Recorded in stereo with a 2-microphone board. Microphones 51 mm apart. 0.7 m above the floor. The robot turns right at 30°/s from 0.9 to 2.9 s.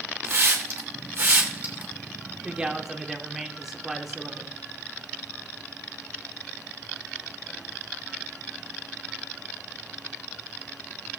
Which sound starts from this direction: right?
A hiss, at 0.2 s.